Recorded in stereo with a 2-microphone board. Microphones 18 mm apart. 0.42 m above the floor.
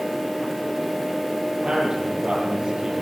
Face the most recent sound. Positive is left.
turn(degrees=-50)  # may be behind; listen again after turning